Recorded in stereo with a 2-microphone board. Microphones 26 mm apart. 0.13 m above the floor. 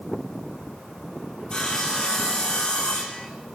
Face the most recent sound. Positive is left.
turn(degrees=30)  # may be behind; listen again after turning